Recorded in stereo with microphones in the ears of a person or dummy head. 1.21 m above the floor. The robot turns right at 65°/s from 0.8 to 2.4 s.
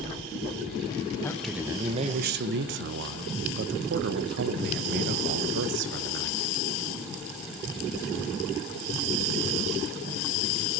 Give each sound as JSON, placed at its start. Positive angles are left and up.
{"t": 1.2, "sound": "a man speaking", "azimuth_deg": 165, "distance_m": 0.7}